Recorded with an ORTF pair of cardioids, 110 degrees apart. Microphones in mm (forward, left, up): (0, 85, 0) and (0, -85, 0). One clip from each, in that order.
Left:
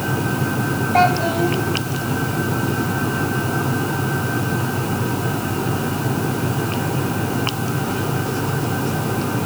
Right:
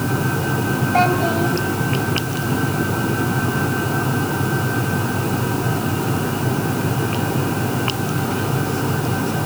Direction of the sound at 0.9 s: 15° left.